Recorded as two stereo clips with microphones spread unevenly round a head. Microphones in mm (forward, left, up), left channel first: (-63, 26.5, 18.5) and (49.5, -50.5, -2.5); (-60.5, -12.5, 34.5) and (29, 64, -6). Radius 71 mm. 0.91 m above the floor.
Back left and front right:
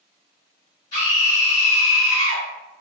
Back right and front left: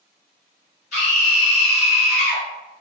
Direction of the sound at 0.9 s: 155° right.